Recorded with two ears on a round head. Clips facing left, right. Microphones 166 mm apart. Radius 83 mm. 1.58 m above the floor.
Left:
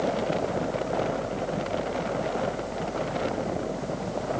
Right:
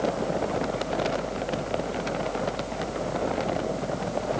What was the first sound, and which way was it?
Only background noise.